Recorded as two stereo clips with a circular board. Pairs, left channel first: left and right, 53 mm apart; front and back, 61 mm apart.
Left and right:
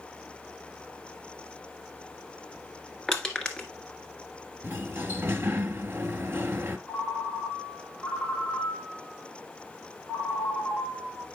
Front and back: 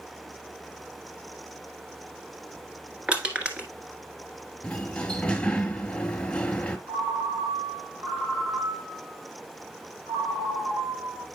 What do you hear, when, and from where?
3.1 s crushing: 150° left, 1.3 m
4.6 s a sliding door: 70° right, 1.0 m
6.9 s a ringtone: 170° left, 1.8 m